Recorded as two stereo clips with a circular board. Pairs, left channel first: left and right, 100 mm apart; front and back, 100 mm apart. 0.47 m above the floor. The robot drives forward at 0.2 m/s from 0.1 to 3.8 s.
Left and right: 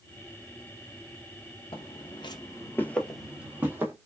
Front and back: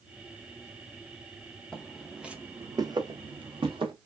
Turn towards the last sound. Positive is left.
turn(degrees=-155)